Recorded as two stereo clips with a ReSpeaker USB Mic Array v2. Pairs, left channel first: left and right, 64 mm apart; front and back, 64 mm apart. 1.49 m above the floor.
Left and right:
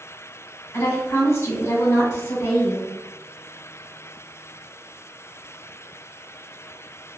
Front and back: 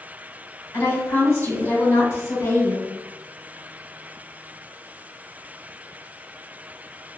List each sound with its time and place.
0.7 s a woman speaking: 50° left, 1.8 m